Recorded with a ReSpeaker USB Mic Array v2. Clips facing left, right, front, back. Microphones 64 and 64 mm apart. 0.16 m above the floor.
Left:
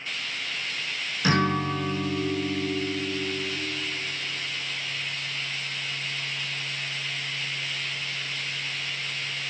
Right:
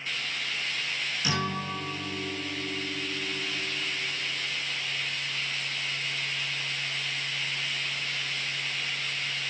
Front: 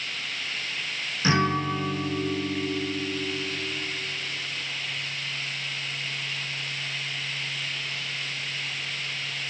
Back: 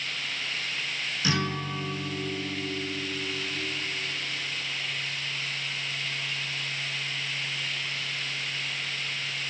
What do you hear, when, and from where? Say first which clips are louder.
1.2 s a guitar: left 9 dB, front 7 dB; 55° left, 0.8 m